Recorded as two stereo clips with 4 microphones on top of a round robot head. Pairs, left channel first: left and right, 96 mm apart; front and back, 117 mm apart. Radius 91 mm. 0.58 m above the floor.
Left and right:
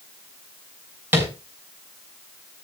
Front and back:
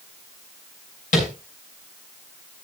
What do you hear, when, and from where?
1.1 s tapping: 20° right, 5.5 m